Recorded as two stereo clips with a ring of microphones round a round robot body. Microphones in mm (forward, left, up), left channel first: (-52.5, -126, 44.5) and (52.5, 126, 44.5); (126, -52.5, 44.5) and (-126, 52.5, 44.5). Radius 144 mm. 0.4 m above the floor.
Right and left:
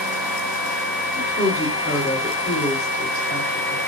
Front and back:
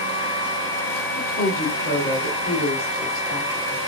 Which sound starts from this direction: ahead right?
A woman speaking, at 1.2 s.